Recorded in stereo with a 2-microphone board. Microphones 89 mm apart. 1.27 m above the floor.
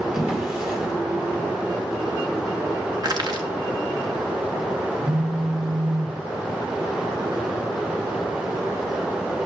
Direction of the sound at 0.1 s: 5° right (ahead or behind).